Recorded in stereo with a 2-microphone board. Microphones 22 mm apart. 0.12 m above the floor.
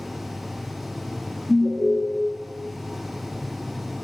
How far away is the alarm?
About 1.4 m.